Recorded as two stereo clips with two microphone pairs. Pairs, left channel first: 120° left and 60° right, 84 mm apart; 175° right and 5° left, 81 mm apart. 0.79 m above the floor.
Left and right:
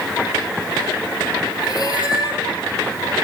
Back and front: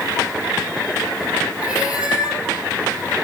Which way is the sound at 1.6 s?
80° left.